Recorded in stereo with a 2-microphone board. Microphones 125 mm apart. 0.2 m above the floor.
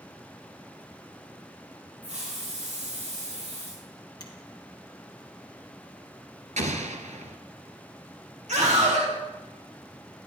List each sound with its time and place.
2.0 s a hiss: 75° right (ahead or behind), 9.5 m
4.2 s a finger snap: 35° left (ahead or behind), 3 m
6.6 s an explosion: 70° right (ahead or behind), 1.5 m
8.5 s a scream: 75° right (ahead or behind), 4.5 m